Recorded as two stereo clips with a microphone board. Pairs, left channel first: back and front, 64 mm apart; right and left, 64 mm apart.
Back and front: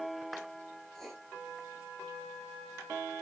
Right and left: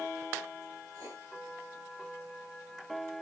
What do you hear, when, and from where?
0.9 s writing: 95° left, 4 m